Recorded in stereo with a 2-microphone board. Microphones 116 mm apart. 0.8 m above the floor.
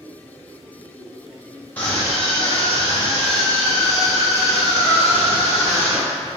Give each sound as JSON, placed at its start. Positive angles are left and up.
{"t": 1.8, "sound": "a scream", "side_deg": 15, "distance_m": 0.9}